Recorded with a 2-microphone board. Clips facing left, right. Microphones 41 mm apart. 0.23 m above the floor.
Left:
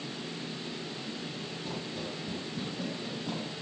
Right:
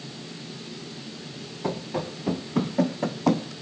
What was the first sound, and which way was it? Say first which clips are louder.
Running footsteps: right 11 dB; 75° right (ahead or behind).